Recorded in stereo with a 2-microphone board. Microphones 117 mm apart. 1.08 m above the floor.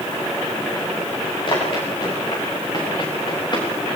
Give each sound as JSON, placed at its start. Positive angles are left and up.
{"t": 1.5, "sound": "running footsteps", "side_deg": 45, "distance_m": 7.0}